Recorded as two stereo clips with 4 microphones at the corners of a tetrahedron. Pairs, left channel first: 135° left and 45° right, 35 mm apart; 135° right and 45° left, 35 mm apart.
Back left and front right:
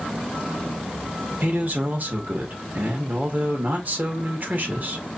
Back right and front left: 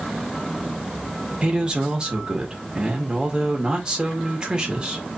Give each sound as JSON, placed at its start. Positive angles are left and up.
{"t": 1.4, "sound": "a man speaking", "azimuth_deg": -20, "distance_m": 1.8}